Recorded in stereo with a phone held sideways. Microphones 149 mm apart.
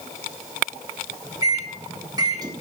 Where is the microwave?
25° right (ahead or behind), 1.1 m.